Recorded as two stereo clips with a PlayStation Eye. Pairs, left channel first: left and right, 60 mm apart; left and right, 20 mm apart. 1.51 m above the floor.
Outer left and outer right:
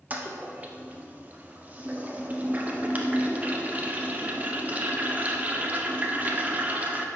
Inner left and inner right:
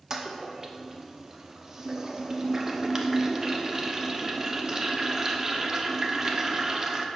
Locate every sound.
0.1 s a toilet flushing: 30° right (ahead or behind), 0.5 m